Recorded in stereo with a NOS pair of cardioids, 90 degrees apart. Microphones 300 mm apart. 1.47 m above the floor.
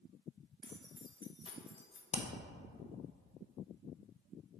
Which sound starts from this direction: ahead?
Keys jangling, at 0.6 s.